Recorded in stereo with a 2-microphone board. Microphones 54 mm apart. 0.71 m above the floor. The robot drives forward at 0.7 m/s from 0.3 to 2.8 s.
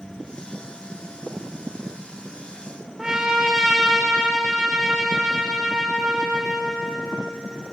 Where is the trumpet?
10° right (ahead or behind), 1.4 m.